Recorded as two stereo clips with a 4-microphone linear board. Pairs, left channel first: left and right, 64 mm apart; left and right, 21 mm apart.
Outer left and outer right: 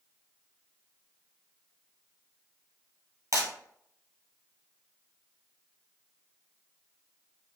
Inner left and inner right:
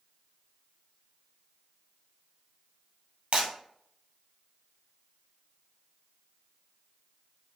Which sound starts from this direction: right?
Breaking glass, at 3.3 s.